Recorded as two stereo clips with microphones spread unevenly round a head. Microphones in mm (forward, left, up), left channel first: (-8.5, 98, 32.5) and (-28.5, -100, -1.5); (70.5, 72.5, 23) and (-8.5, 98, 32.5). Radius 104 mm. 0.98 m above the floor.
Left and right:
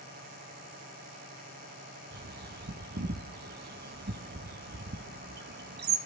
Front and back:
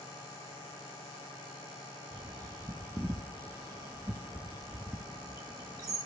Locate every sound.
0.0 s a machine running: 50° right, 7 m
2.1 s a bird: 130° right, 1.1 m